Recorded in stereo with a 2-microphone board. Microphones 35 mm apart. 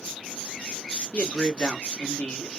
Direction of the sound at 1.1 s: 50° left (ahead or behind).